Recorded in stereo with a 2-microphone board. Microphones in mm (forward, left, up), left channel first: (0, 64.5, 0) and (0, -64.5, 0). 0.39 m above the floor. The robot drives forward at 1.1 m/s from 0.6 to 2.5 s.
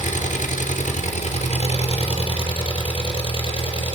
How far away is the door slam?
No door slam in this recording.